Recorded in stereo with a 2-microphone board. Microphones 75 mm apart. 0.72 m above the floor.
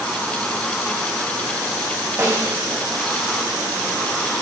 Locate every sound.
2.2 s a snare drum: 35° right (ahead or behind), 4.5 m